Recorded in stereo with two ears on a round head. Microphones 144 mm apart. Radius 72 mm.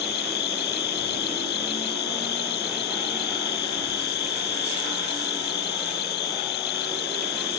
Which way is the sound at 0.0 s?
65° left (ahead or behind).